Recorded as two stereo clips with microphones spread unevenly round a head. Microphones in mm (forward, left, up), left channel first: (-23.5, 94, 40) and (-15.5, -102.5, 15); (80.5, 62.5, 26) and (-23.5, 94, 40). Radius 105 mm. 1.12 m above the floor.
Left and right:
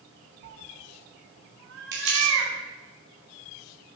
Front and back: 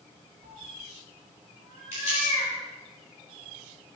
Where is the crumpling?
120° right, 5.5 m.